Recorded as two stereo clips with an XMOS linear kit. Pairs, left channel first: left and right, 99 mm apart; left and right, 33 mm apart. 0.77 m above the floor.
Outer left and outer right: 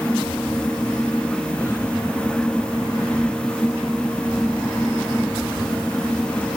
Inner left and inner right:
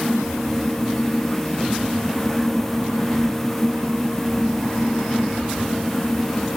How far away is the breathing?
I don't hear breathing.